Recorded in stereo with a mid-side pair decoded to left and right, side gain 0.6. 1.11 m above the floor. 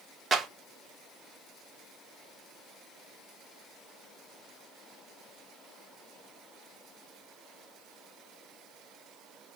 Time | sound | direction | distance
0.3 | a clap | 30° right | 2.5 m